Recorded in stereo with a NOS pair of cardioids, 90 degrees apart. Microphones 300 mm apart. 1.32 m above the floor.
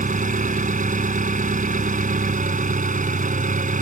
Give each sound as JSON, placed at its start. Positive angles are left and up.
{"t": 0.0, "sound": "an engine running", "azimuth_deg": -25}